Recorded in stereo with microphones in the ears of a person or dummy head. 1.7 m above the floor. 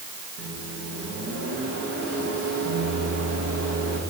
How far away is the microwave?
About 1.8 m.